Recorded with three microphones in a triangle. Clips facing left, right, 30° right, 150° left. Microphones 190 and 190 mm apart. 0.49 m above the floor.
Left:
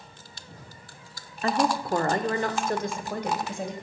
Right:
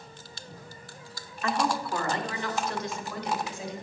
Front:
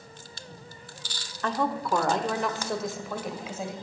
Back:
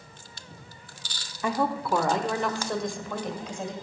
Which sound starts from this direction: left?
A woman speaking, at 1.4 s.